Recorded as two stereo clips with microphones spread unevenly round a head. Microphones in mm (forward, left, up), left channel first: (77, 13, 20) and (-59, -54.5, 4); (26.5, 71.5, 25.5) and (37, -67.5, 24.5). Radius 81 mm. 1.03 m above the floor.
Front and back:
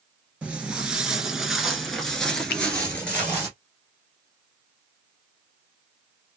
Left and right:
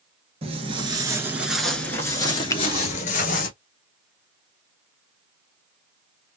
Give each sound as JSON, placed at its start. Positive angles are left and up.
{"t": 0.4, "sound": "footsteps", "azimuth_deg": -70, "distance_m": 1.2}
{"t": 2.5, "sound": "a finger snap", "azimuth_deg": 30, "distance_m": 0.5}